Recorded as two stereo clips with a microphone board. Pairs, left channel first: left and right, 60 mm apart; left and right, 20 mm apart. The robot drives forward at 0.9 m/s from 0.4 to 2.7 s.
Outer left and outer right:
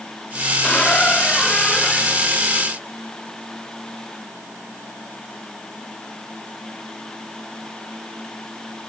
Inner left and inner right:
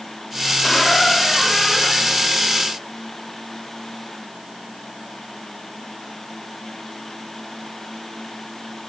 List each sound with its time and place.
0.6 s a squeak: 20° left (ahead or behind); by 2.2 s 10° left (ahead or behind)